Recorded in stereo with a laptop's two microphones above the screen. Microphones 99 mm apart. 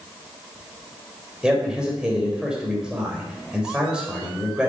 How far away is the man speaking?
About 4 m.